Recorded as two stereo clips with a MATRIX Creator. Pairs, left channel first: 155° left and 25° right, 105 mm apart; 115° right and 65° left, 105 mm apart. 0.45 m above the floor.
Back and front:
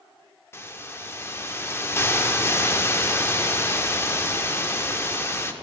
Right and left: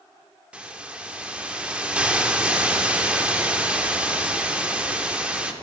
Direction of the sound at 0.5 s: 135° left.